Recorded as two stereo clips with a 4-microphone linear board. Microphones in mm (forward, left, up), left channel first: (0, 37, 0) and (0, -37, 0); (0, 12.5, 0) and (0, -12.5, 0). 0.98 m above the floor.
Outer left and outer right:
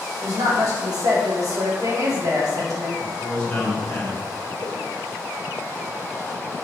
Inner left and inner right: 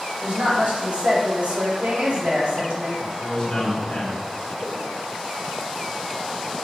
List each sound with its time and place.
0.2 s a woman speaking: 55° right (ahead or behind), 1.9 m
3.0 s a man speaking: 15° left (ahead or behind), 2 m
4.6 s a whoosh: 70° right (ahead or behind), 1.4 m